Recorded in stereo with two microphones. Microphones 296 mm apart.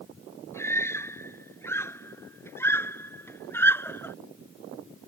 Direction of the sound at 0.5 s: 10° left (ahead or behind).